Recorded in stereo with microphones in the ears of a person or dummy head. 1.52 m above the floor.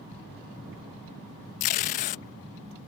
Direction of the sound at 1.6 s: 40° left (ahead or behind).